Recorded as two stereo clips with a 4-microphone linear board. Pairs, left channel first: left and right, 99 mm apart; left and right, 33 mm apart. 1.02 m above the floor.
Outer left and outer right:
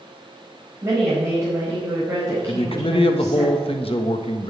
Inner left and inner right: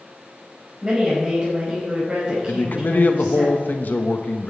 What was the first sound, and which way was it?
A woman speaking, 30° right (ahead or behind).